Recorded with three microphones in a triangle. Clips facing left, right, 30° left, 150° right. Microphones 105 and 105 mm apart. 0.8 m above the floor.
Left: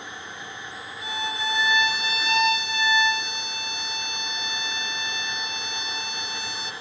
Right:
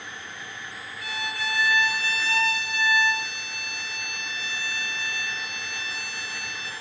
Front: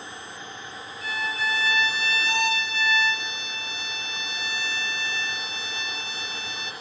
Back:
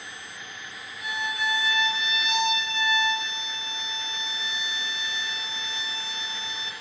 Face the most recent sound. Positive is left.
turn(degrees=150)